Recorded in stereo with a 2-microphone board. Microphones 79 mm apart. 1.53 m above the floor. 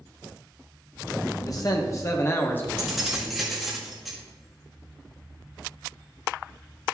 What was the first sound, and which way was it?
A man speaking, 50° left (ahead or behind).